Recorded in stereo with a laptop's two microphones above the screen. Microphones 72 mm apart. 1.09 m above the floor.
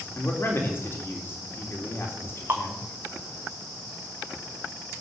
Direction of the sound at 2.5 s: 30° right (ahead or behind).